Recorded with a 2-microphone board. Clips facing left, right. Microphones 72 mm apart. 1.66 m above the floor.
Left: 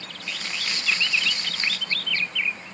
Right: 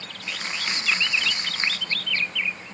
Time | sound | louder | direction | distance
0.3 | crumpling | right 2 dB | 30° right (ahead or behind) | 0.8 m